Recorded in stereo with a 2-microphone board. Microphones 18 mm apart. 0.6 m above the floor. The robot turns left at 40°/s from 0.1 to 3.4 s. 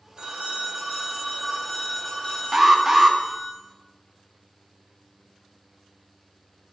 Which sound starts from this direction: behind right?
A phone ringing, at 0.2 s.